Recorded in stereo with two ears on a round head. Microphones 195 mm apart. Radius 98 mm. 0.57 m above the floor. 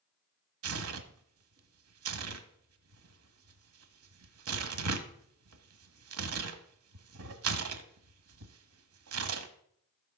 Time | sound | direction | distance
0.6 | tearing paper | 70° right (ahead or behind) | 1.1 m